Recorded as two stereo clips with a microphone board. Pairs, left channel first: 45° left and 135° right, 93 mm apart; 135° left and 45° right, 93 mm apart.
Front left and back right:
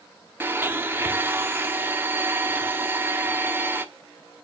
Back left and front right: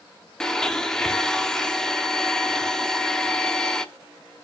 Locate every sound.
0.4 s a blender: 150° right, 0.9 m